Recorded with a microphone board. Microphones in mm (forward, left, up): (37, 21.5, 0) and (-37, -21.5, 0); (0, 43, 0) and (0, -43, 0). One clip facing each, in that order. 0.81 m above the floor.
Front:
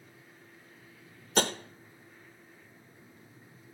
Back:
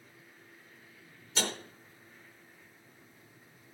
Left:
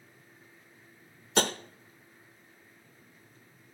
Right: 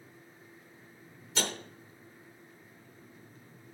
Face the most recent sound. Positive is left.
turn(degrees=60)